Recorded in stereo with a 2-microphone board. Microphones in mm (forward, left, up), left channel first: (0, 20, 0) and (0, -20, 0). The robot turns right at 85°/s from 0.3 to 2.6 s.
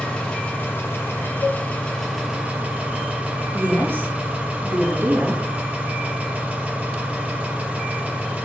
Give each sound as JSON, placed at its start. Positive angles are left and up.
{"t": 0.0, "sound": "an engine running", "azimuth_deg": 25, "distance_m": 7.0}
{"t": 1.4, "sound": "a cowbell", "side_deg": 60, "distance_m": 0.5}
{"t": 3.5, "sound": "a woman speaking", "side_deg": -80, "distance_m": 5.5}